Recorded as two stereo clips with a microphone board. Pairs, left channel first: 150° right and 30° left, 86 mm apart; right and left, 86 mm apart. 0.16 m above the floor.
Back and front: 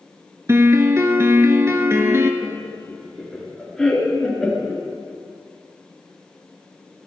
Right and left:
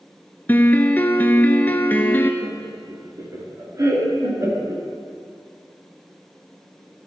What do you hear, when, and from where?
0.5 s a piano: 25° right, 1.0 m
2.4 s laughter: 125° left, 2.5 m